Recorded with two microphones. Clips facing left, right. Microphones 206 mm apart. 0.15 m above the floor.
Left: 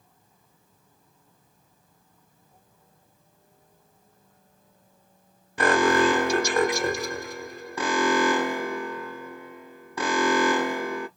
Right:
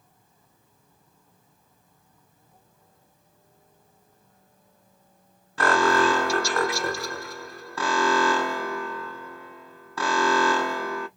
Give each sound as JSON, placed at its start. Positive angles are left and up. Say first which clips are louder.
{"t": 5.6, "sound": "an alarm", "louder": "left 1 dB", "side_deg": 20, "distance_m": 0.8}